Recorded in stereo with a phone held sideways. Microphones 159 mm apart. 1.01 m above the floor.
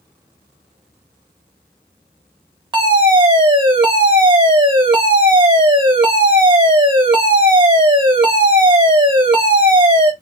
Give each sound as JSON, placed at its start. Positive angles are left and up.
{"t": 2.7, "sound": "a fire alarm", "side_deg": -30, "distance_m": 1.2}